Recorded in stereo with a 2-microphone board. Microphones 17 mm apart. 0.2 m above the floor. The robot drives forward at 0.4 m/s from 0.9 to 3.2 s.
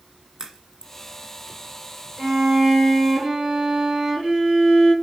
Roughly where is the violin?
Right.